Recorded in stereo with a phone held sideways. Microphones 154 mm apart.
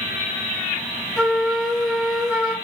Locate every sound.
1.2 s a flute: 5° right (ahead or behind), 0.6 m